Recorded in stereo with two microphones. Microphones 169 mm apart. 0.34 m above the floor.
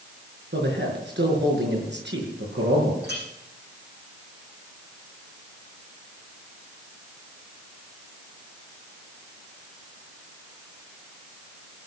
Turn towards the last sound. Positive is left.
turn(degrees=-75)  # may be behind; listen again after turning